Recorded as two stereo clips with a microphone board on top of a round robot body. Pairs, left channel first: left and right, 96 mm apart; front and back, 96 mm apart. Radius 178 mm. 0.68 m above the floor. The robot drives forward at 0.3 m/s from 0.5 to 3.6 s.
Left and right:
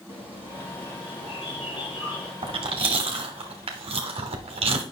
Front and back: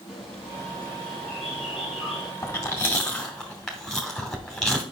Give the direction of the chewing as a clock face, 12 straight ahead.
2 o'clock.